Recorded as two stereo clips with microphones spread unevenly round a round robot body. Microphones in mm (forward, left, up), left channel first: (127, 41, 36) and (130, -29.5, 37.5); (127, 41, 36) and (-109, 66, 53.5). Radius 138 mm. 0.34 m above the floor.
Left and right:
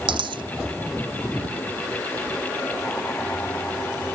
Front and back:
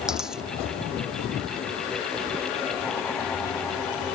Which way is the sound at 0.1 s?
100° right.